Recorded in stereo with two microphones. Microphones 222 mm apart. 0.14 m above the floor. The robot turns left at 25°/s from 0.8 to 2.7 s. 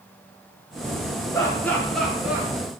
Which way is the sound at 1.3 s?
15° left (ahead or behind).